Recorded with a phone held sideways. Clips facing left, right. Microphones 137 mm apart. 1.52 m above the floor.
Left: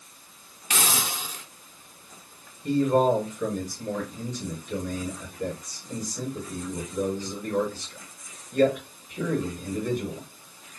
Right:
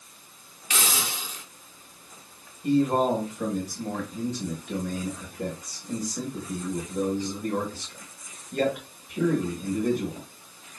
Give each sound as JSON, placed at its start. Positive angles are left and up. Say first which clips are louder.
{"t": 0.7, "sound": "a hiss", "louder": "left 2 dB", "side_deg": 50, "distance_m": 0.8}
{"t": 2.6, "sound": "a man speaking", "louder": "left 1 dB", "side_deg": -75, "distance_m": 2.5}